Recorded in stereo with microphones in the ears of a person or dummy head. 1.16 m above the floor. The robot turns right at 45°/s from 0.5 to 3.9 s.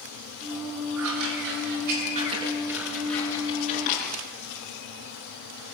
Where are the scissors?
85° right, 7 m; by 4.2 s 35° left (ahead or behind), 7 m.